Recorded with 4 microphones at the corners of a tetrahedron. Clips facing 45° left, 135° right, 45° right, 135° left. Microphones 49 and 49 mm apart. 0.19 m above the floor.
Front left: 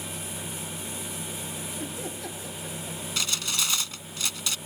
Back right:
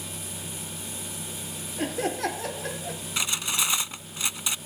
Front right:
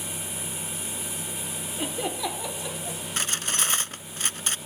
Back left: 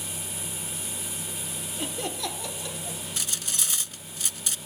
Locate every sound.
1.8 s laughter: 120° right
3.2 s cutlery clinking: 70° right